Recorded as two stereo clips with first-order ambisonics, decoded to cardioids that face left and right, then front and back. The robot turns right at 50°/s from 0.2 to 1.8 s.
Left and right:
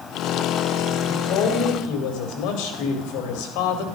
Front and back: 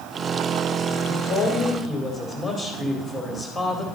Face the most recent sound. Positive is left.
turn(degrees=75)